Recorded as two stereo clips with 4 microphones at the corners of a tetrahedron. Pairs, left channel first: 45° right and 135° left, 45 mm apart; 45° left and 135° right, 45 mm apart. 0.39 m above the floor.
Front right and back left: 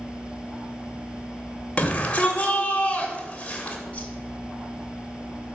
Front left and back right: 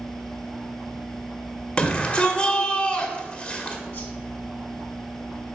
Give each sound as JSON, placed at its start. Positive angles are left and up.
{"t": 1.8, "sound": "a shout", "azimuth_deg": -5, "distance_m": 1.3}
{"t": 3.9, "sound": "a whoosh", "azimuth_deg": 15, "distance_m": 1.6}